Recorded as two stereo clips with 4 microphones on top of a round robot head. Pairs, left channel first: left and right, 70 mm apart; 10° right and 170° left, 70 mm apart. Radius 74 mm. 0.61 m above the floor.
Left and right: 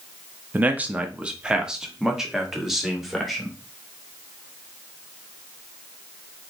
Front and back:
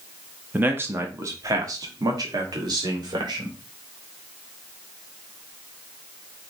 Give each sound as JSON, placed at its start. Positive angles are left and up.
{"t": 0.5, "sound": "a man speaking", "azimuth_deg": -135, "distance_m": 0.8}